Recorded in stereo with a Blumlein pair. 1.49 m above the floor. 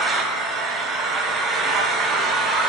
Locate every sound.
0.0 s an engine running: 20° right, 0.8 m